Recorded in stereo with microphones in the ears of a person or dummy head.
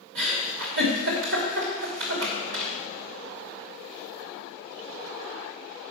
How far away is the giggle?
About 3.5 m.